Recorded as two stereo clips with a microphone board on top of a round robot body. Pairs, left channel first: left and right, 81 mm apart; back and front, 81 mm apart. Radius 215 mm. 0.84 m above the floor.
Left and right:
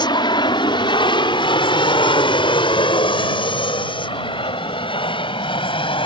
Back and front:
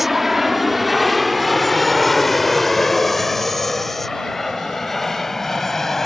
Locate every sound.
0.0 s an aircraft: 85° left; by 6.1 s 95° left